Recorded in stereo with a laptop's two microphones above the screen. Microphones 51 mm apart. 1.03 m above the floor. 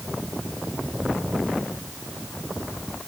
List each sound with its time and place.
Only background noise.